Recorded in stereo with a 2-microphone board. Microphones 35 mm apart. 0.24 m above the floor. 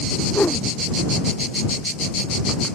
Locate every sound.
0.3 s a whoosh: 60° left (ahead or behind)